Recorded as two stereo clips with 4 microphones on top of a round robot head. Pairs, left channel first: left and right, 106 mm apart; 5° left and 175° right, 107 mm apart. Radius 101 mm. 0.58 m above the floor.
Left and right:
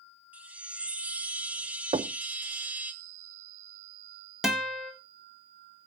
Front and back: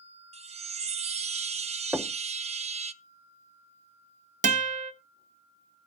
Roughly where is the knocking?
Right.